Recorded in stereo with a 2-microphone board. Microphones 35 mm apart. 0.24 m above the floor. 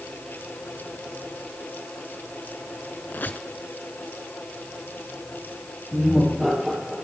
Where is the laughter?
Centre (ahead or behind), 7 m.